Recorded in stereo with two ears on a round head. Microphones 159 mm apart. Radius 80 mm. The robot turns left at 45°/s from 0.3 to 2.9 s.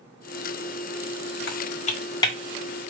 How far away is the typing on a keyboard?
About 0.8 m.